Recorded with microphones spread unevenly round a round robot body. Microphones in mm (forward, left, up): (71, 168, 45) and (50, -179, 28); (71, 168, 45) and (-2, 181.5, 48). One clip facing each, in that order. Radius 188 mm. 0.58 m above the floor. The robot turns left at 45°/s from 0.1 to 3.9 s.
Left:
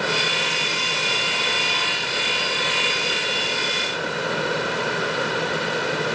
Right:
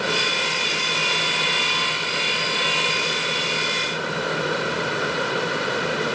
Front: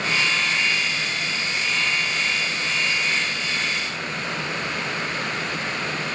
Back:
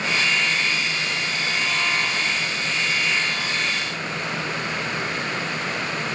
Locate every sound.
Only background noise.